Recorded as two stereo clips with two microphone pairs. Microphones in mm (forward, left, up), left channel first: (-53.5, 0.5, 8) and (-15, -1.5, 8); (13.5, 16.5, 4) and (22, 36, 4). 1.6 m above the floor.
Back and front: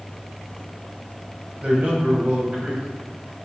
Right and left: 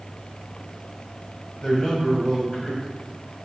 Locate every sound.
1.6 s a man speaking: 65° right, 1.3 m